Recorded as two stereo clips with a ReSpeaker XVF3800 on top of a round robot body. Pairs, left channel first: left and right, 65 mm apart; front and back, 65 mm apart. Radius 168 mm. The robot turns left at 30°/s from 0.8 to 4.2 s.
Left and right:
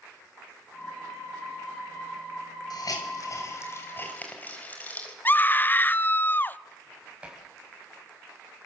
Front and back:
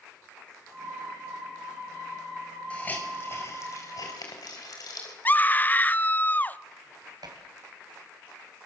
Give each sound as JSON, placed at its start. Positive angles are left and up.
{"t": 2.7, "sound": "a hiss", "azimuth_deg": 70, "distance_m": 4.5}
{"t": 5.2, "sound": "a scream", "azimuth_deg": 45, "distance_m": 1.0}
{"t": 7.2, "sound": "dishes clattering", "azimuth_deg": -165, "distance_m": 4.0}